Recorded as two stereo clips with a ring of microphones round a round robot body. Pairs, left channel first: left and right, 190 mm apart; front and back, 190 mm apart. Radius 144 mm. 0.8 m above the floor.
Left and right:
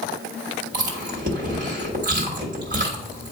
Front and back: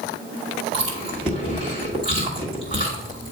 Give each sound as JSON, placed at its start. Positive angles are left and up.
{"t": 0.7, "sound": "chewing", "azimuth_deg": -120, "distance_m": 1.4}